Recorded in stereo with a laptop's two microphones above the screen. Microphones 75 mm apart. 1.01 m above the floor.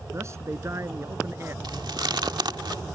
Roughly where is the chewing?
Right.